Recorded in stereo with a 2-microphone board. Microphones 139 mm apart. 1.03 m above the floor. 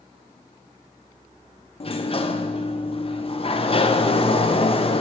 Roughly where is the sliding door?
Left.